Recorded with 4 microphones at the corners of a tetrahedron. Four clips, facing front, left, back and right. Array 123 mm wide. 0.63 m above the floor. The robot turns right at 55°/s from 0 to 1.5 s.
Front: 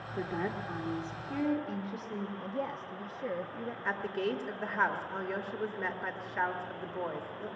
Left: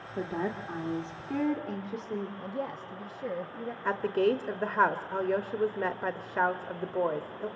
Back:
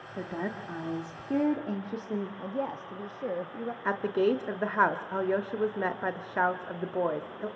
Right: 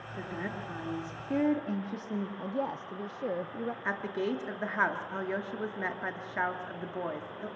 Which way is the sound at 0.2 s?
110° left.